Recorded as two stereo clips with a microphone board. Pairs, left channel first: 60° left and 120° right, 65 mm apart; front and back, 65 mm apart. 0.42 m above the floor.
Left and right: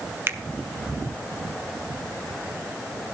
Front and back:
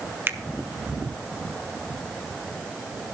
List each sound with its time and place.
0.3 s a finger snap: 145° right, 1.2 m